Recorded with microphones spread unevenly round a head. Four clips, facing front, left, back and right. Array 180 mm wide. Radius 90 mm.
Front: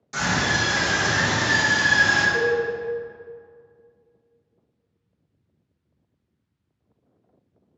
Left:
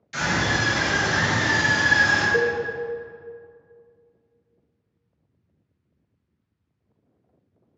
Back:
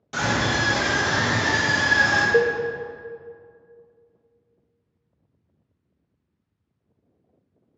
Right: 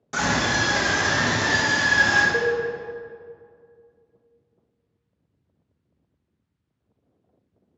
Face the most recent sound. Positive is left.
turn(degrees=175)